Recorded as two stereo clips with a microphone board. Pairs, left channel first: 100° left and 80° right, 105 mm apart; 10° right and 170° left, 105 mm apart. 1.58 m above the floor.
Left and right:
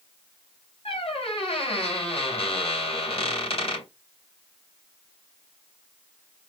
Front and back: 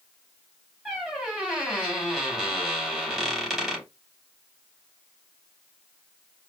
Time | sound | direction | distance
0.8 | a squeak | 80° left | 3 m